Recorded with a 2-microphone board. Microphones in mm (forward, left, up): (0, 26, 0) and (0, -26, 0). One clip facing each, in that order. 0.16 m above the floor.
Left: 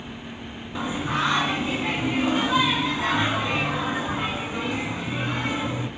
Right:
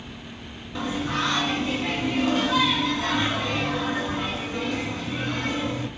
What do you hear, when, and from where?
0.8 s singing: 15° left (ahead or behind), 0.8 m